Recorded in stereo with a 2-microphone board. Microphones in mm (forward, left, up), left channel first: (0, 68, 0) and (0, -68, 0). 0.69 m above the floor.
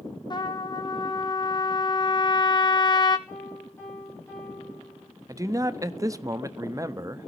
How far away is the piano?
About 7 m.